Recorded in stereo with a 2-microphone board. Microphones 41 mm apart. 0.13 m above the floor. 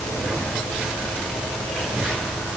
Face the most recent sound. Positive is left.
No sound to turn to.